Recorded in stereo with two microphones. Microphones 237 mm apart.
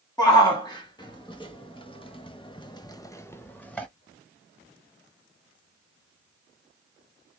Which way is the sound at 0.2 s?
15° left (ahead or behind).